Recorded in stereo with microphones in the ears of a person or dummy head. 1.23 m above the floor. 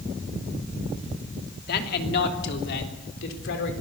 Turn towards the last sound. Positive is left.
turn(degrees=75)  # may be behind; listen again after turning